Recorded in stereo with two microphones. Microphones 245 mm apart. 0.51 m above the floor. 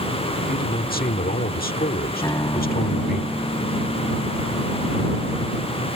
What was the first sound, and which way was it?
A man speaking, 40° left (ahead or behind).